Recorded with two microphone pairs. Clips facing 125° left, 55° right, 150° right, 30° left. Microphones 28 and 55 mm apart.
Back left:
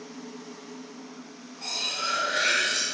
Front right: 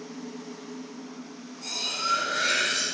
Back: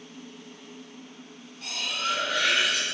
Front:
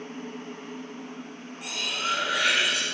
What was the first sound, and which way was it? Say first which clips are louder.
Cutlery clinking: even, even; 105° left.